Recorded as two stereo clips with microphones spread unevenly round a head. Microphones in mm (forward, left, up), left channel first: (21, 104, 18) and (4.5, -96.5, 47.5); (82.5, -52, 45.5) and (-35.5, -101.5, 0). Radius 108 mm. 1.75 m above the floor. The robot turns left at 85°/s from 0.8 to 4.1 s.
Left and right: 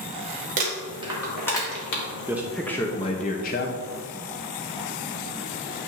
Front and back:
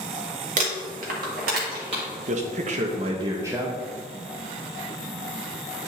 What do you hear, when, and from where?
0.6 s crumpling: 130° right, 1.6 m; by 2.0 s 125° left, 1.6 m
2.3 s a man speaking: 150° right, 0.7 m; by 3.8 s 85° left, 0.7 m